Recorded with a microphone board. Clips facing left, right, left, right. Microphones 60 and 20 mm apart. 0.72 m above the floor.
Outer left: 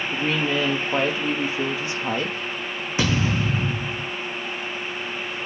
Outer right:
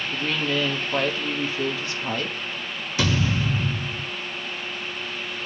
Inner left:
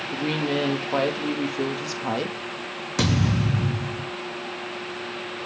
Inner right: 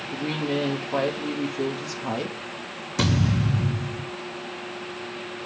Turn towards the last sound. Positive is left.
turn(degrees=25)  # may be behind; listen again after turning